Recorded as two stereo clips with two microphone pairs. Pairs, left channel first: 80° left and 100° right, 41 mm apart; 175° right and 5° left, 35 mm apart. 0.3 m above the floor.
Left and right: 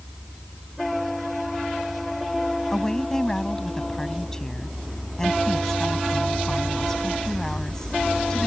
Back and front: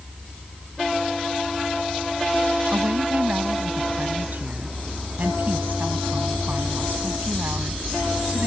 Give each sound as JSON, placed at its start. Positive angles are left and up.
{"t": 2.7, "sound": "a woman speaking", "azimuth_deg": 5}